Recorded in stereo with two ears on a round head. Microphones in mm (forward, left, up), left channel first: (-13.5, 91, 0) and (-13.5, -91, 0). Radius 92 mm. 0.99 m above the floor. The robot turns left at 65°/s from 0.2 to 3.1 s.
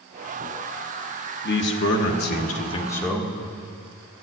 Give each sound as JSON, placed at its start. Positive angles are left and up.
{"t": 1.4, "sound": "a man speaking", "azimuth_deg": 110, "distance_m": 1.3}